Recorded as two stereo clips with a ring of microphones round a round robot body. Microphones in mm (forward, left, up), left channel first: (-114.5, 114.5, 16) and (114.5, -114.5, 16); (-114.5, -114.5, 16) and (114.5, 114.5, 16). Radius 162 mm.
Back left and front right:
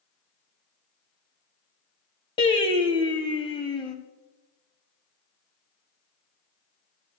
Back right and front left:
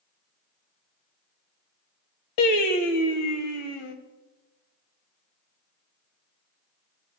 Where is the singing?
150° right, 1.5 m.